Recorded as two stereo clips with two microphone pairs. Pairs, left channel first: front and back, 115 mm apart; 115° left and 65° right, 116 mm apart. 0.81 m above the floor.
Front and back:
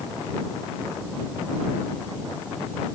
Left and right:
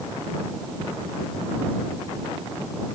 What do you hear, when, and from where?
Only background noise.